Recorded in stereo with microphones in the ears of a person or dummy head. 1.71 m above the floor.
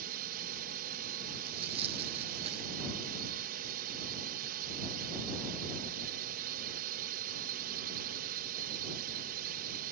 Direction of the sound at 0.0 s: 50° right (ahead or behind).